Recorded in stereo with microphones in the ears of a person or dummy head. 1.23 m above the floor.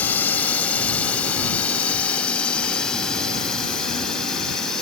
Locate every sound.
0.0 s a drone: 10° left (ahead or behind); by 4.8 s 5° left (ahead or behind)